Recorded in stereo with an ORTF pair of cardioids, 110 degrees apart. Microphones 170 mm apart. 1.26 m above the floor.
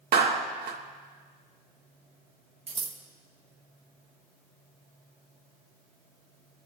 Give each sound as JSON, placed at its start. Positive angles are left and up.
{"t": 0.1, "sound": "a clap", "azimuth_deg": -65, "distance_m": 1.4}
{"t": 2.7, "sound": "scissors", "azimuth_deg": -35, "distance_m": 1.5}